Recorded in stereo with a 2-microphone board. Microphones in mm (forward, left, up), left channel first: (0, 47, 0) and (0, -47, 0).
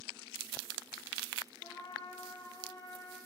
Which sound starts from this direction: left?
A trumpet, at 1.6 s.